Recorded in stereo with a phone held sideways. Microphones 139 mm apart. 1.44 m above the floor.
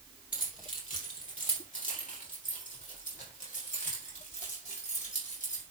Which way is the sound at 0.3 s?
75° left (ahead or behind).